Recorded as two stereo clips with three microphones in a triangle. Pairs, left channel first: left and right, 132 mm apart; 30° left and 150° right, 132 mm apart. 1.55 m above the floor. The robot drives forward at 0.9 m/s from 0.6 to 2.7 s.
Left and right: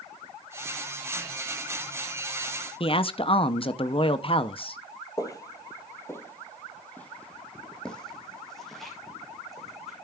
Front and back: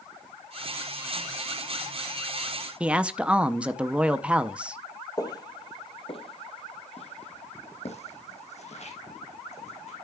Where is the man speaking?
130° left, 0.6 m.